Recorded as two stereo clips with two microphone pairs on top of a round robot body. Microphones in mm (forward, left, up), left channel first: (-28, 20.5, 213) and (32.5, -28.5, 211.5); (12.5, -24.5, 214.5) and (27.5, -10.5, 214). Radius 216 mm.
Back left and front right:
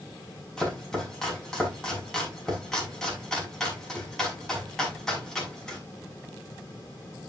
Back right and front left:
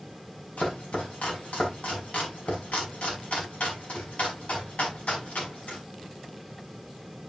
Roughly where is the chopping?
Behind right.